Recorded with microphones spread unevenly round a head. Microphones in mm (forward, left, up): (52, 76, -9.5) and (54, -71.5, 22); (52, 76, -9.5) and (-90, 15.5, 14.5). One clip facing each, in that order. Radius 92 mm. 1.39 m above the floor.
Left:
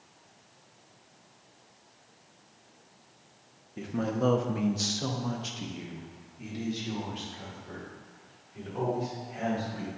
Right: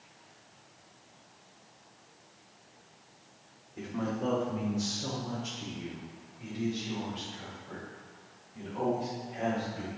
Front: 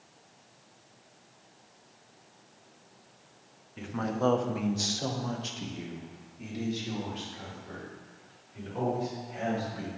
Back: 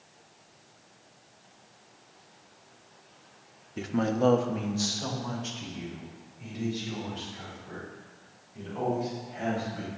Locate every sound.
3.8 s a man speaking: 160° left, 0.7 m; by 9.9 s 50° left, 4 m